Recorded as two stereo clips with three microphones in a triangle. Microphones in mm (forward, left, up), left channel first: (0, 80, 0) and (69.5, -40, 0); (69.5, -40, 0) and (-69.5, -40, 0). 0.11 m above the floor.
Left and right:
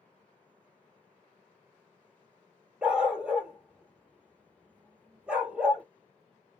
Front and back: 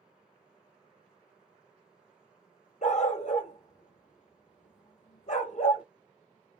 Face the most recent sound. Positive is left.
turn(degrees=25)